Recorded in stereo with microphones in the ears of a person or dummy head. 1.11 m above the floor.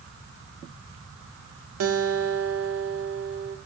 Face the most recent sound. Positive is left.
turn(degrees=-85)